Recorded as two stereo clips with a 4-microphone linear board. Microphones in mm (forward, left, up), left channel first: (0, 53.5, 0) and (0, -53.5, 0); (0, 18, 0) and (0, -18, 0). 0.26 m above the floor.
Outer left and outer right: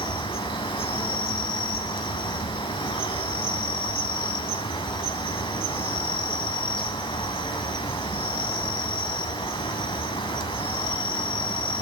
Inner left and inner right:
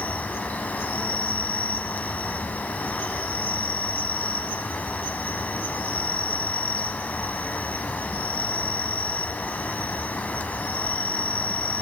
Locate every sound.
0.0 s an insect: 55° left (ahead or behind), 0.8 m